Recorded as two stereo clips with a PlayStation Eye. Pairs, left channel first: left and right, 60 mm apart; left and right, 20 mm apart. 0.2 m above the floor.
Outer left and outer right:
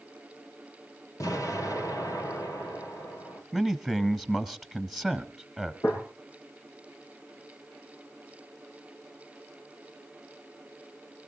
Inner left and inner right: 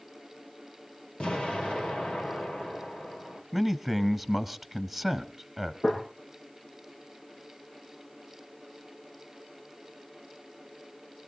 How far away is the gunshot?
About 8.5 m.